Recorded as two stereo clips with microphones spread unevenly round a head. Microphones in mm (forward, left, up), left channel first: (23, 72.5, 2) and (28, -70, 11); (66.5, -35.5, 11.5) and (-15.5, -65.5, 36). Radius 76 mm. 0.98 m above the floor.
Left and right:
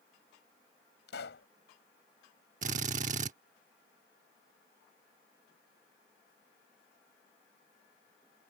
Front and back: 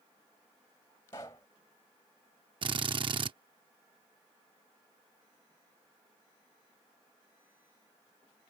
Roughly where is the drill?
Behind right.